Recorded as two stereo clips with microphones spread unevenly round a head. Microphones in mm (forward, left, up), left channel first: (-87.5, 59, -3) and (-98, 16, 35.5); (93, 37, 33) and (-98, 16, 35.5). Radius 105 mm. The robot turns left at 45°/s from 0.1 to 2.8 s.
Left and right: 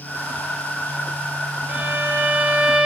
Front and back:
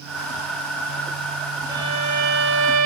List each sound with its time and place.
1.7 s a violin: 100° right, 2 m; by 2.9 s 150° right, 2 m